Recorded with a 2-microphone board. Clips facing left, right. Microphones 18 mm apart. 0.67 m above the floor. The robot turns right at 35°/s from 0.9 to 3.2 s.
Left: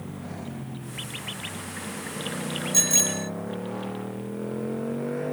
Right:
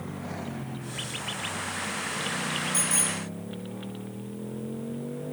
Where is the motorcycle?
20° right; by 5.3 s 65° left.